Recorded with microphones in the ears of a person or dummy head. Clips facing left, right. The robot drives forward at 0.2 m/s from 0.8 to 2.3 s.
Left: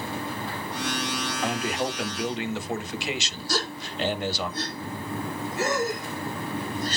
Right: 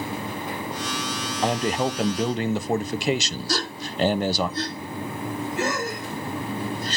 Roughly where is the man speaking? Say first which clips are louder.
Right 6 dB; right.